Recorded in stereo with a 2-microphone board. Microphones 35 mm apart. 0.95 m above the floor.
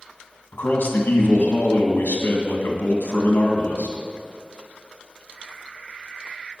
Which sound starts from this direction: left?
A man speaking, at 0.5 s.